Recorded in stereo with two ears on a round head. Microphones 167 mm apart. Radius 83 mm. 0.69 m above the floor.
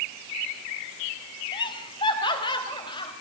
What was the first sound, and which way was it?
Laughter, 25° left (ahead or behind).